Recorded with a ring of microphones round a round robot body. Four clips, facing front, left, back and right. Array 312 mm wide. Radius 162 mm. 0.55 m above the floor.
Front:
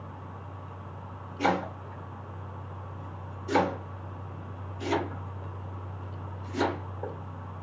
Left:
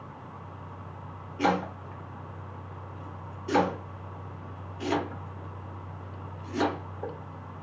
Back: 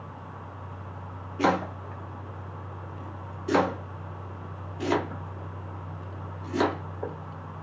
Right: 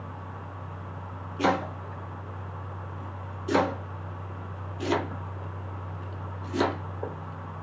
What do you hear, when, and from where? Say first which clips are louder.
1.4 s chopping: right 1 dB, back 2 dB; 165° right, 1.3 m